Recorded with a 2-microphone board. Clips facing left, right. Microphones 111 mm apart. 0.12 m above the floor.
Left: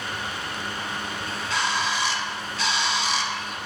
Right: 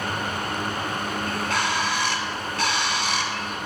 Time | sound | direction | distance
1.3 | a bird | 55° right (ahead or behind) | 1.2 m